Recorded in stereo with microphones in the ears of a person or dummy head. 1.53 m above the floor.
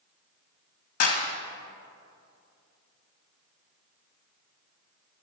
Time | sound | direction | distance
1.0 | a clap | 45° left (ahead or behind) | 1.9 m